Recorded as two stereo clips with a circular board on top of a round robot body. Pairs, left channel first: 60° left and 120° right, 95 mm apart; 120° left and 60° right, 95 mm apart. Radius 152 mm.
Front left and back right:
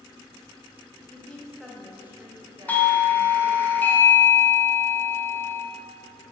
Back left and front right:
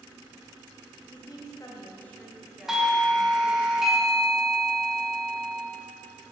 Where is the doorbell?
20° left, 1.1 m.